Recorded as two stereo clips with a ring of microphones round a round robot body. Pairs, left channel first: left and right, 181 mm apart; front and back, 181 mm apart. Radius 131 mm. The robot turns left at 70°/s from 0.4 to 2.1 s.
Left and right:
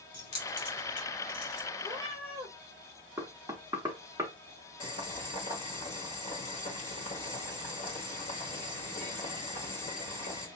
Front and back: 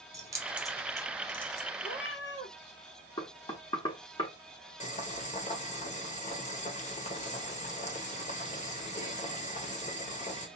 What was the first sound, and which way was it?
Keys jangling, 110° left.